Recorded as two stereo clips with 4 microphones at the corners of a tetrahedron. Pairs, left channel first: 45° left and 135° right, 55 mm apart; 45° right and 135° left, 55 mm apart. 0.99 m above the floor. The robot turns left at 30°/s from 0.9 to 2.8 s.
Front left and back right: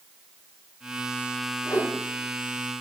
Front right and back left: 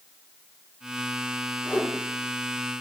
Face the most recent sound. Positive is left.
turn(degrees=20)